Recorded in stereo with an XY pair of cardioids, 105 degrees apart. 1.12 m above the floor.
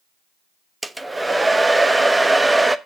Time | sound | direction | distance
0.8 | a hair dryer | 15° right | 0.7 m